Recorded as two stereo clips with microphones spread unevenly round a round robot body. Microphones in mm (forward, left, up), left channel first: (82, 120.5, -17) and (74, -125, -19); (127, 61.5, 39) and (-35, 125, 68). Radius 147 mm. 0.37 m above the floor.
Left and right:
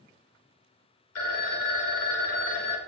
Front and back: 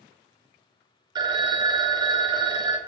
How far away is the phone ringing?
About 0.7 m.